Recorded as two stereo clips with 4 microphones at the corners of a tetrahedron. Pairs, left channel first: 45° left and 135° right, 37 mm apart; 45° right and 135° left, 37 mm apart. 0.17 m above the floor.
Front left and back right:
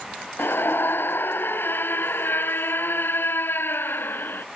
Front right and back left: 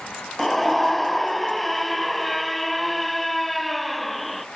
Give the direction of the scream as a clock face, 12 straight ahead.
11 o'clock.